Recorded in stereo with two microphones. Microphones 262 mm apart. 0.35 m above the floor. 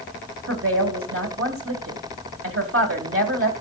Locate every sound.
0.5 s a woman speaking: 55° right (ahead or behind), 2.0 m